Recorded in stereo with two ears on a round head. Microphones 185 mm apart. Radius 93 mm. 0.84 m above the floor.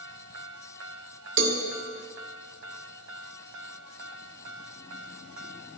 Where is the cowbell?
65° right (ahead or behind), 1.1 m.